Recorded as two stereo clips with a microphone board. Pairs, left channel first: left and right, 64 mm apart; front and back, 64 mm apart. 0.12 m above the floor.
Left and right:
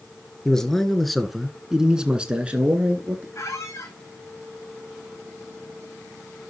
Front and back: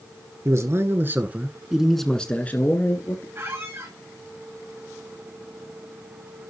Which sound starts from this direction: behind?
A man speaking, at 0.5 s.